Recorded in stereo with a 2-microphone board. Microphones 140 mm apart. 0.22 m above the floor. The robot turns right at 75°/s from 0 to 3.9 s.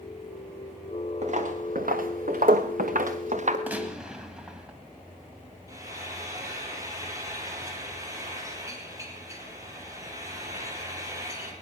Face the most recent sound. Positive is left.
turn(degrees=-20)  # may be behind; listen again after turning